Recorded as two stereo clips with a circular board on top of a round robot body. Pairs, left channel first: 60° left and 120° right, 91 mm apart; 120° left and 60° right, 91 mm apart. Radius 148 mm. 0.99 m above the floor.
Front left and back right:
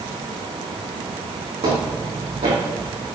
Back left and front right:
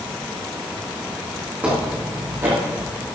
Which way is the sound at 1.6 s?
135° right.